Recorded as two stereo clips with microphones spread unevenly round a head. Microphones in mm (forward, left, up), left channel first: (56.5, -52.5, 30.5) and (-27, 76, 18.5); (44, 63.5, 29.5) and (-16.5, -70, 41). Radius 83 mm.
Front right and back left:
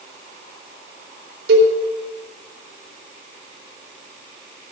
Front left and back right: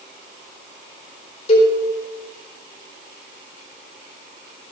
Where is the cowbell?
115° left, 4 m.